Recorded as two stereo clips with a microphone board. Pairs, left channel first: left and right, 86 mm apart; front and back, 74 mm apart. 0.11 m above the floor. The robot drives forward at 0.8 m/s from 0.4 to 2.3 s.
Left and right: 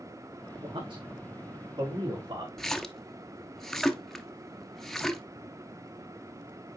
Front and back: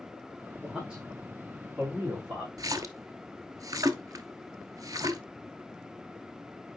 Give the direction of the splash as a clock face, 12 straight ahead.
6 o'clock.